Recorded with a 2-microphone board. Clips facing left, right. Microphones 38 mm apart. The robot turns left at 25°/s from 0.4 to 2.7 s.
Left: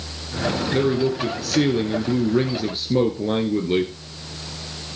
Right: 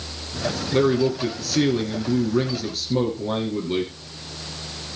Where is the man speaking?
170° right, 1.6 m; by 3.9 s 140° left, 1.6 m.